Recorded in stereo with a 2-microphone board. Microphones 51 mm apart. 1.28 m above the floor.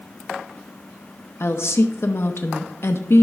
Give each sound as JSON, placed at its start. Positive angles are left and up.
{"t": 1.4, "sound": "a woman speaking", "side_deg": 60, "distance_m": 0.7}